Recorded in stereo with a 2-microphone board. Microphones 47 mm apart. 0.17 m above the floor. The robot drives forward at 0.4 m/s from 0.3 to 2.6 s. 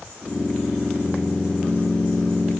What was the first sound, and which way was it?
Only background noise.